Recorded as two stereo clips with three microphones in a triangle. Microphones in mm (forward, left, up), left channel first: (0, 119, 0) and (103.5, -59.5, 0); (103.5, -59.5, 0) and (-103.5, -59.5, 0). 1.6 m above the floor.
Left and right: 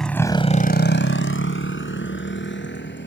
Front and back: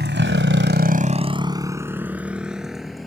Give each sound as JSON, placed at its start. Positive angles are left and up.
{"t": 0.0, "sound": "a motorcycle", "azimuth_deg": -150}